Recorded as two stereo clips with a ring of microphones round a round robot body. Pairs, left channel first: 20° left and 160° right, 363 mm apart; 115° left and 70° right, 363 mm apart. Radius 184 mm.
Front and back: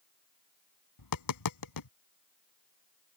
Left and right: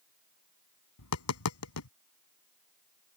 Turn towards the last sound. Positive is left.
turn(degrees=60)